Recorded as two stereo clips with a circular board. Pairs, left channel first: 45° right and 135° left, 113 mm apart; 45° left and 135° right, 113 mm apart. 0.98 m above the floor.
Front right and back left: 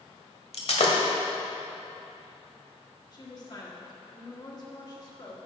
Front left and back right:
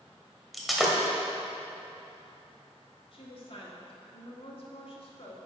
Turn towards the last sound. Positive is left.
turn(degrees=5)